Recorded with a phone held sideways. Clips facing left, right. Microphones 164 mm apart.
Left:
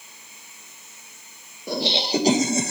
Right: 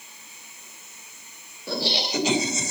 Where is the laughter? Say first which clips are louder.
Left 4 dB; 15° left (ahead or behind), 1.4 m; by 2.7 s 60° left (ahead or behind), 1.0 m.